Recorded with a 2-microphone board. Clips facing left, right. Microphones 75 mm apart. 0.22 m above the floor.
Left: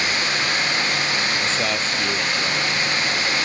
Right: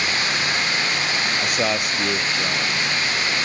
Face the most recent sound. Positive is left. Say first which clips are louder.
# right 1 dB
turn(degrees=-15)  # may be behind; listen again after turning